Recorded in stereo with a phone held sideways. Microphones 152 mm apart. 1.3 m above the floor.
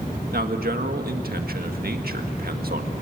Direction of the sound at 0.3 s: 80° right.